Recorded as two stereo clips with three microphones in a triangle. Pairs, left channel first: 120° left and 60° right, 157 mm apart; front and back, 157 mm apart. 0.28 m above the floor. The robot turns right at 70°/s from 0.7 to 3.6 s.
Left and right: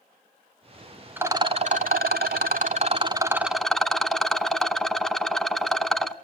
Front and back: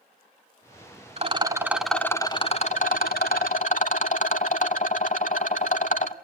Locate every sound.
1.2 s a rattle: 140° right, 0.8 m; by 6.1 s 30° left, 0.8 m